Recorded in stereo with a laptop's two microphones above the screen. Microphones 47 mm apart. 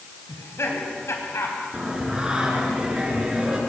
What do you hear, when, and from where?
0.3 s laughter: 75° left (ahead or behind), 5 m
1.7 s singing: 20° right (ahead or behind), 4.5 m